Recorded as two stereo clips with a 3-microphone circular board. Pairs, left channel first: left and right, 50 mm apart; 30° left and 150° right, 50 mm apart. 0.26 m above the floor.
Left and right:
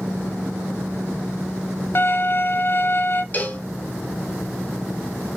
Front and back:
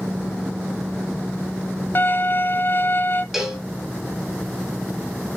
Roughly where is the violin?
Ahead left.